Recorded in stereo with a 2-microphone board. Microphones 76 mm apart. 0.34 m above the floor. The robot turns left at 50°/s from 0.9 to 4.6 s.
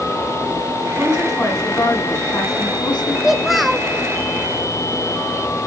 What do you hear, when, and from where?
1.0 s a woman speaking: 160° right, 4.5 m; by 3.1 s 90° left, 4.5 m
3.2 s a child speaking: 5° right (ahead or behind), 0.6 m; by 3.9 s 5° left (ahead or behind), 0.6 m